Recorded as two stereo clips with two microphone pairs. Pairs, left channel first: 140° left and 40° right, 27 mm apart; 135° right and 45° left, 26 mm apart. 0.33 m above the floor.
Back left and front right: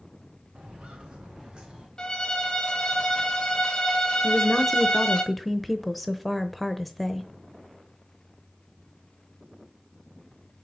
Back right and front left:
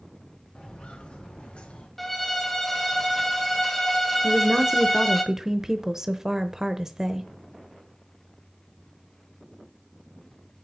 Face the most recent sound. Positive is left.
turn(degrees=50)